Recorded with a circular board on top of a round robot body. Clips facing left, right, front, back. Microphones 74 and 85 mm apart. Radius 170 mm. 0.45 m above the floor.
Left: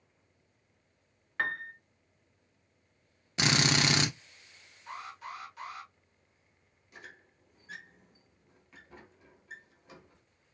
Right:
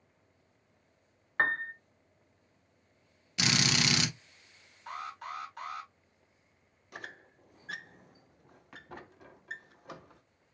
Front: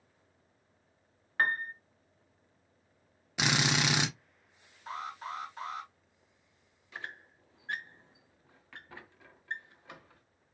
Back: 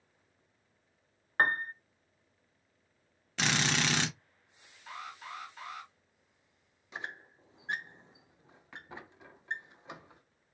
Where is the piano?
135° right, 0.5 m.